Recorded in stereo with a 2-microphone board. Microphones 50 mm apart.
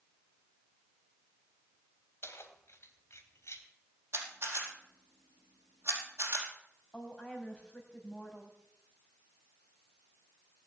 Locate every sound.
2.2 s keys jangling: 60° left (ahead or behind), 3 m; by 3.7 s 75° left (ahead or behind), 3 m
4.1 s a camera shutter: 55° right (ahead or behind), 4.5 m
6.9 s a woman speaking: 15° left (ahead or behind), 3.5 m